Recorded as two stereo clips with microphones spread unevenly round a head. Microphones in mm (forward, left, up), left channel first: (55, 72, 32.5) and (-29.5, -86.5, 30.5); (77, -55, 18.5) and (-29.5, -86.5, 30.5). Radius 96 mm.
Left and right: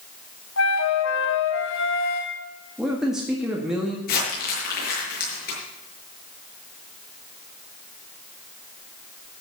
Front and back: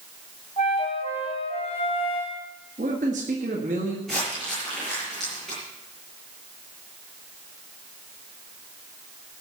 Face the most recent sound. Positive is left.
turn(degrees=105)